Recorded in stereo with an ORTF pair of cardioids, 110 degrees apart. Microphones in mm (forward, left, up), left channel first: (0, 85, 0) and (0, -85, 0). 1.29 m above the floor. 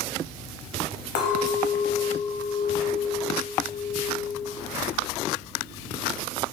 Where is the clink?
70° left, 0.8 m.